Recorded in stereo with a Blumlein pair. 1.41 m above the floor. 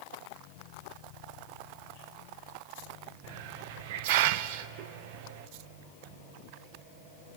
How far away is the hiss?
About 0.6 m.